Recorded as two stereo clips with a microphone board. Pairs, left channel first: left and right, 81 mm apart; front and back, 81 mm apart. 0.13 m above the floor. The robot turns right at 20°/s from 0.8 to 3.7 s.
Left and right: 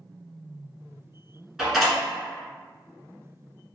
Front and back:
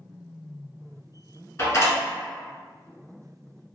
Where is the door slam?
5° right, 1.0 m; by 2.0 s straight ahead, 1.0 m.